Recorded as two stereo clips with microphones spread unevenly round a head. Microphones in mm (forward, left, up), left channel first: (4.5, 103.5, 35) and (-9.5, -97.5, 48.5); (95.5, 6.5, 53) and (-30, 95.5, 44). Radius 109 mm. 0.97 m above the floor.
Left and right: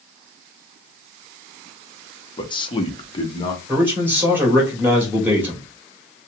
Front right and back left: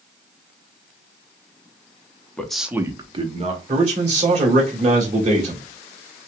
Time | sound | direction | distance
2.4 | a man speaking | 45° left | 0.9 m
3.7 | a man speaking | 175° right | 1.9 m